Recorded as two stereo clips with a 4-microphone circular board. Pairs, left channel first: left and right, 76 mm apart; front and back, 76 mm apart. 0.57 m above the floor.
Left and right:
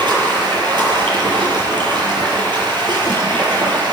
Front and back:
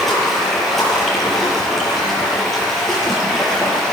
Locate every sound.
0.0 s running water: 90° right, 8.5 m